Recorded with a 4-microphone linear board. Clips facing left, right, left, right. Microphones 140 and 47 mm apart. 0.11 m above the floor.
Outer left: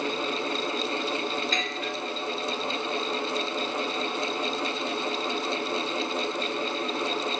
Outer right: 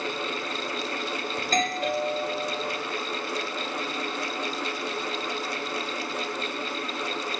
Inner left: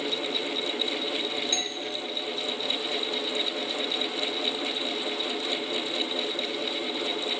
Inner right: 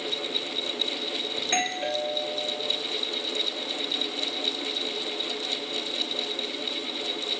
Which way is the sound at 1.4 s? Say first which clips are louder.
Outer right 4 dB, inner right 4 dB; 45° right (ahead or behind).